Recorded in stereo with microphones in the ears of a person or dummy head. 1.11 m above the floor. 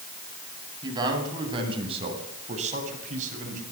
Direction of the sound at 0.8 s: 25° right (ahead or behind).